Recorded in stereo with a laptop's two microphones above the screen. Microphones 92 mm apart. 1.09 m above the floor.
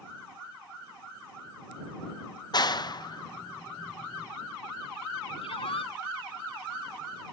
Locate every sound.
2.5 s a clap: 50° left (ahead or behind)
5.4 s a shout: 80° left